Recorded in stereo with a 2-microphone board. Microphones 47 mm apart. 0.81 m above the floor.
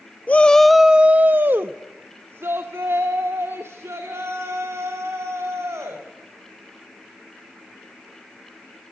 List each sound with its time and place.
0.3 s a shout: 30° left (ahead or behind), 0.6 m; by 6.0 s 75° right (ahead or behind), 4 m